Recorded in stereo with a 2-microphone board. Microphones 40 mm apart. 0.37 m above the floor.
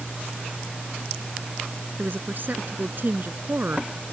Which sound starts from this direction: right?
A woman speaking, at 2.0 s.